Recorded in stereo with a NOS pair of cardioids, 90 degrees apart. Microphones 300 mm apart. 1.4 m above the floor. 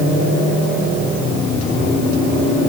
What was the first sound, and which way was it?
Only background noise.